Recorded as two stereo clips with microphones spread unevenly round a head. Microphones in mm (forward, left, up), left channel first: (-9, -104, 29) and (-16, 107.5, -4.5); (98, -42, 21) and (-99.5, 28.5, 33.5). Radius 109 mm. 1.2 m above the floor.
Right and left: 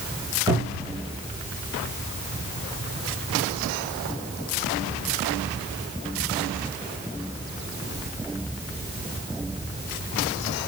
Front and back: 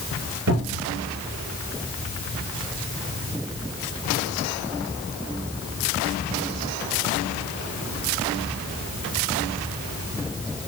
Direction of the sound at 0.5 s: 165° left.